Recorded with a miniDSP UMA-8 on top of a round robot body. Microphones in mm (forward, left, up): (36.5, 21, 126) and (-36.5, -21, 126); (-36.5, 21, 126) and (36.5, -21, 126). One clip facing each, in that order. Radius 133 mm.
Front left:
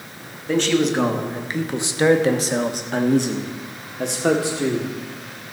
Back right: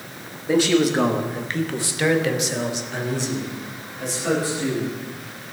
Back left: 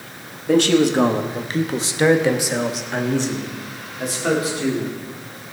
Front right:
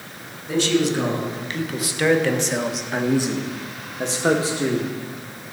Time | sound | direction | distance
0.5 | a man speaking | 135° left | 1.7 m